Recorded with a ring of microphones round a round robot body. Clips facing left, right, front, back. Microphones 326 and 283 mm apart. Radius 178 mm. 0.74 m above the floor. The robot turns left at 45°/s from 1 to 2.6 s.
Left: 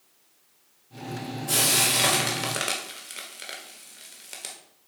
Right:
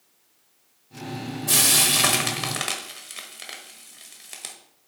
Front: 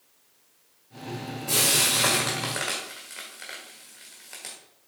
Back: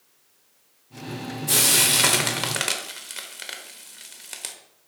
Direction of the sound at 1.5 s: 120° right.